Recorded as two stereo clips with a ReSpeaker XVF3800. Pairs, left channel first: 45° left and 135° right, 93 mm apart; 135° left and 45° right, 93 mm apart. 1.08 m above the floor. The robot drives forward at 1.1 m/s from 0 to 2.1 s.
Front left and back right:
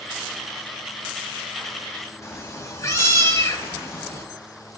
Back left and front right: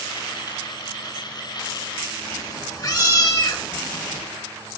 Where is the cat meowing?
95° left, 1.7 m.